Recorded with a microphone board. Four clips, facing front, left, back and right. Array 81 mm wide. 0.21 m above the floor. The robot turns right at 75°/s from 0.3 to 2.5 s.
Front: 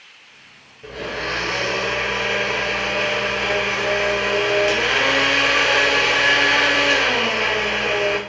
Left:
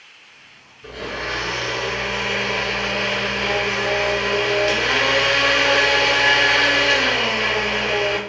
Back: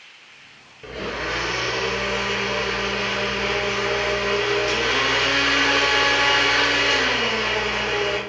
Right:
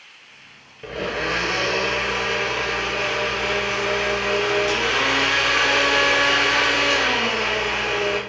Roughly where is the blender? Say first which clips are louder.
Right 3 dB, front 1 dB; right.